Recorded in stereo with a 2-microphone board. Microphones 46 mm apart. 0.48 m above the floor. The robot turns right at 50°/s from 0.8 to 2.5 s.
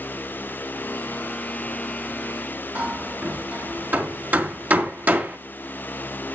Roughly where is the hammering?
Right.